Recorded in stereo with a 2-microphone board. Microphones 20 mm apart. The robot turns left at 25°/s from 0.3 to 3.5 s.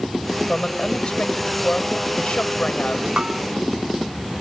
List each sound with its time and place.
0.5 s a woman speaking: 140° left; by 3.1 s 75° left
3.2 s a bell: 50° right (ahead or behind); by 3.4 s 55° right (ahead or behind)